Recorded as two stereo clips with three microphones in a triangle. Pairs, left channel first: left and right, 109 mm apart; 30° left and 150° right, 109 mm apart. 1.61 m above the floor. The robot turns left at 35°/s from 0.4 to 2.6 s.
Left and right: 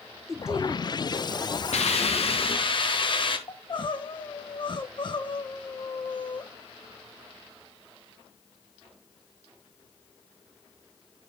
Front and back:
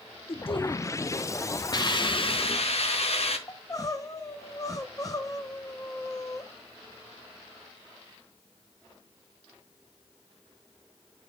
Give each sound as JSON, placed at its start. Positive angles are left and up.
{"t": 0.3, "sound": "a man speaking", "azimuth_deg": -5, "distance_m": 0.9}
{"t": 1.7, "sound": "a hiss", "azimuth_deg": 80, "distance_m": 1.0}
{"t": 3.5, "sound": "crying", "azimuth_deg": 75, "distance_m": 0.8}